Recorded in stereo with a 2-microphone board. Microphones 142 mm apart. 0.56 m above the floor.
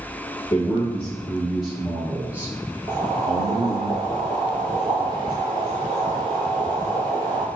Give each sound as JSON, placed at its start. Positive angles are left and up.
{"t": 0.5, "sound": "a man speaking", "side_deg": 10, "distance_m": 1.3}
{"t": 2.9, "sound": "boiling", "side_deg": -35, "distance_m": 2.5}